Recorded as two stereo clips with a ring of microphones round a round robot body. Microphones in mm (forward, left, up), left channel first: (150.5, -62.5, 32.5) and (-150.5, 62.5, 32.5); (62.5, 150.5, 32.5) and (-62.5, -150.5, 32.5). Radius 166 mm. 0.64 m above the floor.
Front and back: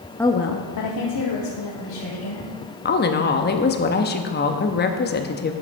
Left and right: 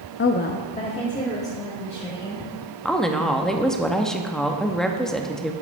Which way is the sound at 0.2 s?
60° left.